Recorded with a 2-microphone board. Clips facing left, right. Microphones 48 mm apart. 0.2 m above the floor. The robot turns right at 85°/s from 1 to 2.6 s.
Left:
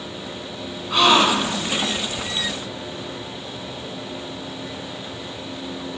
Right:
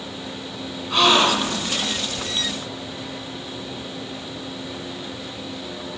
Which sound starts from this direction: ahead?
A gasp, at 0.9 s.